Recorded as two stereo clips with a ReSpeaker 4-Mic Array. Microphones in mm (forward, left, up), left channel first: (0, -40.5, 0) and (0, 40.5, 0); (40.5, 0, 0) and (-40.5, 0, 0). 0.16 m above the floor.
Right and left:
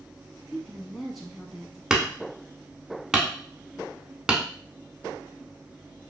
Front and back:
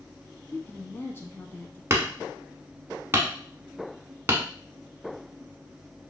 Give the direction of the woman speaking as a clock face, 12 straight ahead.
12 o'clock.